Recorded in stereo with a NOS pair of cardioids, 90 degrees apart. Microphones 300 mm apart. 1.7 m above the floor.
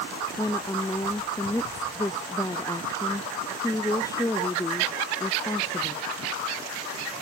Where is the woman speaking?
10° left.